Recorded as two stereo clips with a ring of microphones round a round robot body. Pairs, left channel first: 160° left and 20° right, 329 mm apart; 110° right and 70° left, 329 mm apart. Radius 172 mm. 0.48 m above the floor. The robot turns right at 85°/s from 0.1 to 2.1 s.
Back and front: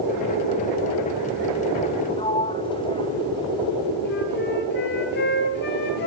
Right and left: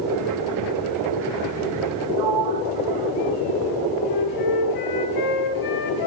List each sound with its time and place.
2.2 s a sliding door: 80° left, 2.0 m
4.0 s a flute: 140° right, 4.5 m